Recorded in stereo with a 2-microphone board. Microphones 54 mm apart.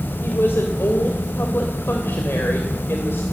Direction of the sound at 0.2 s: 45° left (ahead or behind).